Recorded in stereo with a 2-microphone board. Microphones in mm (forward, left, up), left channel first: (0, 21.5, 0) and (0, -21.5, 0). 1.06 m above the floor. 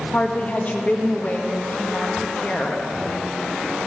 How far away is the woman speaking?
About 1.7 m.